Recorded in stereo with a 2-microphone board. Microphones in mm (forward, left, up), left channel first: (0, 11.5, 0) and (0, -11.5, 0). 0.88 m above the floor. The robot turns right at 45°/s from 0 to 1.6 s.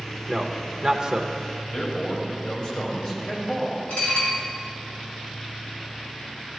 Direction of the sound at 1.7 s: 50° left (ahead or behind).